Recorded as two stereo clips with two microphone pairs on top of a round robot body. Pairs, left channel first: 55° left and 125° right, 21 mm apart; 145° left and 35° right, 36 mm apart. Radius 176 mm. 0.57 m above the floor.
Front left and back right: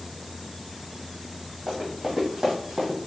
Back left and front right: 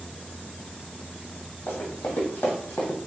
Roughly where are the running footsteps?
Behind.